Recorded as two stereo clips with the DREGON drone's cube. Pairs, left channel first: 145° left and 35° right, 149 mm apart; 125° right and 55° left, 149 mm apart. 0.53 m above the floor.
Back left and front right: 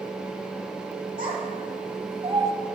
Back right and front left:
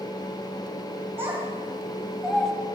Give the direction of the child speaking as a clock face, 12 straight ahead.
1 o'clock.